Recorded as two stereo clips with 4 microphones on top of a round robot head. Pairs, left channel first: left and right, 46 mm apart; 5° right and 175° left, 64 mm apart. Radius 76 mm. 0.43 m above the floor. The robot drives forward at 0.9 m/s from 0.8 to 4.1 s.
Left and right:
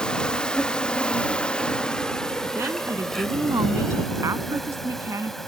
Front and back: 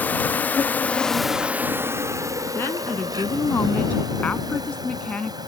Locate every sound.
0.0 s an insect: 35° left; by 5.5 s 175° left
2.5 s a woman speaking: 60° right; by 5.4 s 75° right